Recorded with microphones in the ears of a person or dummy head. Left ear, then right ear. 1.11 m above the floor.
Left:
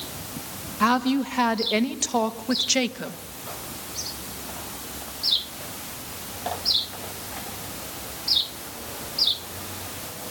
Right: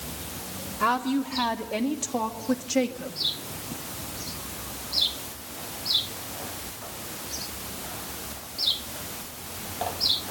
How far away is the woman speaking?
About 1.5 m.